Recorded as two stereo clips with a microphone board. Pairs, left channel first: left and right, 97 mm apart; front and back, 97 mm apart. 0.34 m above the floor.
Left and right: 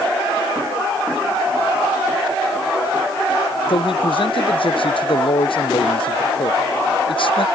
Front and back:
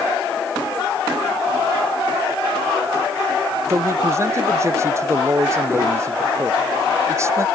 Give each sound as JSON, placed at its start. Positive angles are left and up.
{"t": 3.7, "sound": "a man speaking", "azimuth_deg": 120}